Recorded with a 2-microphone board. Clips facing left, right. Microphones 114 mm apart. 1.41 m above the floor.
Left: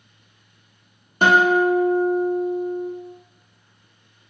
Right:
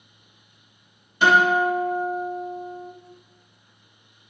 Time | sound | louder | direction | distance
1.2 | a guitar | left 2 dB | 45° left (ahead or behind) | 0.9 m